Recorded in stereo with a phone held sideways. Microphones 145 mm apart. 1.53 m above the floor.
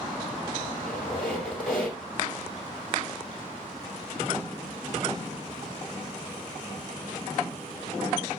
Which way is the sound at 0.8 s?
5° left (ahead or behind).